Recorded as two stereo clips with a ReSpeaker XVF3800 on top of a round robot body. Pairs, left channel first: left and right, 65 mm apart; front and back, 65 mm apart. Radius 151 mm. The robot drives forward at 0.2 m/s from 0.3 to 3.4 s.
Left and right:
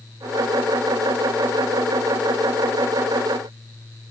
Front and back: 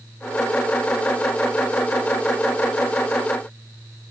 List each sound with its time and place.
Only background noise.